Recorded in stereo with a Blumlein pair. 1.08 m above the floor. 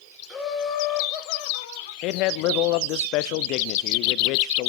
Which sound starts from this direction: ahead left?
A man speaking, at 2.0 s.